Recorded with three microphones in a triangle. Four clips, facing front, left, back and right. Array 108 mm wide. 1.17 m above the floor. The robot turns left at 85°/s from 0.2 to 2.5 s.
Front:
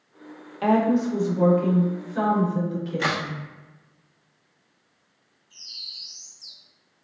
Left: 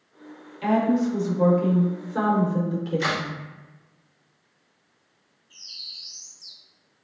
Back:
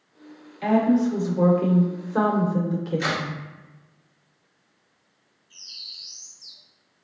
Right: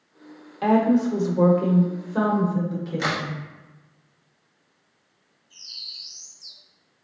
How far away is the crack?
About 1.3 m.